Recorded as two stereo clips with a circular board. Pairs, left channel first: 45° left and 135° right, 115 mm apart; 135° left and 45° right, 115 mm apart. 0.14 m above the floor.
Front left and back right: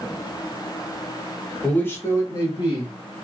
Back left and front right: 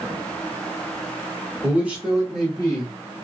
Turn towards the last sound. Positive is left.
turn(degrees=55)